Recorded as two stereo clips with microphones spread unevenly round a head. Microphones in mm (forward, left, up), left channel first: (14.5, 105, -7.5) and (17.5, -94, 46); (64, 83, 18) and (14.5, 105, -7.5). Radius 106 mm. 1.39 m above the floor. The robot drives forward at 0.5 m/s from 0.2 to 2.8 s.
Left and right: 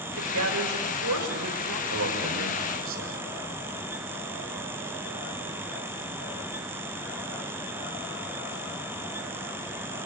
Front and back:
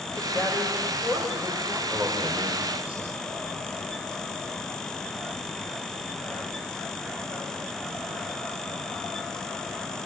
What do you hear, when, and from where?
0.2 s a woman speaking: 100° right, 7 m; by 1.8 s 105° right, 7.5 m
1.9 s a man speaking: 120° right, 6.5 m